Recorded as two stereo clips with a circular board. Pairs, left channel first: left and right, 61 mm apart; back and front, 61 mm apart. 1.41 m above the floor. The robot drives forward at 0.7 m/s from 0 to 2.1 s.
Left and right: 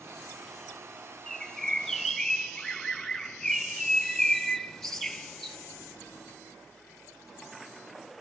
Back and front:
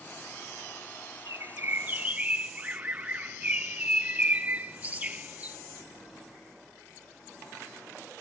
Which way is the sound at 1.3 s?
5° left.